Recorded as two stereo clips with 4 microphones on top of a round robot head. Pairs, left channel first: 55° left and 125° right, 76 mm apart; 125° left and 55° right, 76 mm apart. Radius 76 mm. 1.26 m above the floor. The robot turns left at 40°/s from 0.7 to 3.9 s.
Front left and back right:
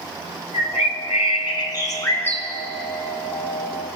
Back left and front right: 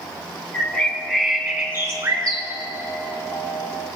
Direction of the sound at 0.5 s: 55° left.